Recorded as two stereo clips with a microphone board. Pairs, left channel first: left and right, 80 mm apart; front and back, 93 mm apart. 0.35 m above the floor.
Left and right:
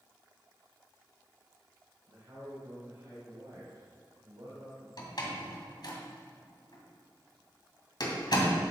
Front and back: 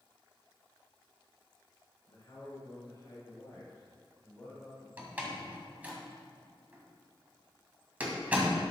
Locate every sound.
2.1 s a man speaking: 45° right, 3.5 m; by 4.9 s 75° right, 1.6 m
5.0 s a door slam: 110° left, 2 m